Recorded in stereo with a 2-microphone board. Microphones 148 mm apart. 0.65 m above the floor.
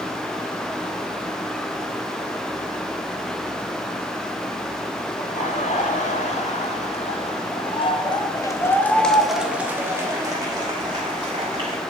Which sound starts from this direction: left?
Laughter, at 5.2 s.